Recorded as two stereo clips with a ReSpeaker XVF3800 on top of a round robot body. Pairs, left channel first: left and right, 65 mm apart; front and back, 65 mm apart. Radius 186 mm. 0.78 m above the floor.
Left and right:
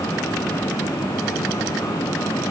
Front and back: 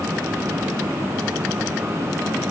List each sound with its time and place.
Only background noise.